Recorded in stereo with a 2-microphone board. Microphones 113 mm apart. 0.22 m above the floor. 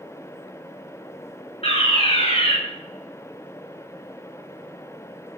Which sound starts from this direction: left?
A fire alarm, at 1.6 s.